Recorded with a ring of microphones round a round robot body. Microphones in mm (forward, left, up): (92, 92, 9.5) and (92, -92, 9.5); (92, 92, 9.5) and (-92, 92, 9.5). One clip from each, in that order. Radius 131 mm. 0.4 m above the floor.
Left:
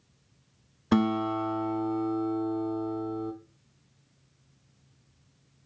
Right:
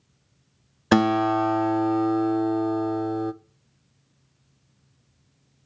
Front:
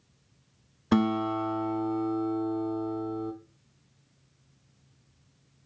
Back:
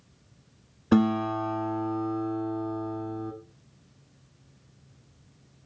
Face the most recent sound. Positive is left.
turn(degrees=-70)